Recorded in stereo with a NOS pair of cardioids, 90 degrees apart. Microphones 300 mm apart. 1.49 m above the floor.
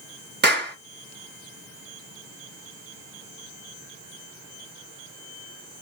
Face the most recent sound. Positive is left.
turn(degrees=-35)